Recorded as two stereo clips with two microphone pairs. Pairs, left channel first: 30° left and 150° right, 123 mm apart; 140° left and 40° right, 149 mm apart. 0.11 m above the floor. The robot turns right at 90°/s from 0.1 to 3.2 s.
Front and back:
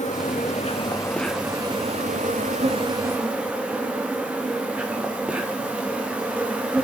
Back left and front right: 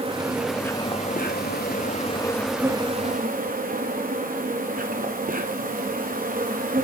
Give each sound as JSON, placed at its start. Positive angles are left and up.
{"t": 0.0, "sound": "an insect", "azimuth_deg": 15, "distance_m": 1.8}